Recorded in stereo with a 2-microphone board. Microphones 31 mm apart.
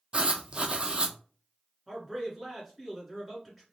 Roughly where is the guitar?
No guitar in this recording.